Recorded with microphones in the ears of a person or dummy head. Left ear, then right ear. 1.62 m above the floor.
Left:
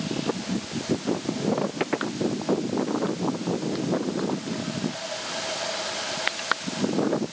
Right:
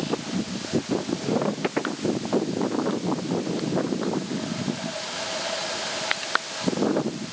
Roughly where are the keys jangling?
I don't hear keys jangling.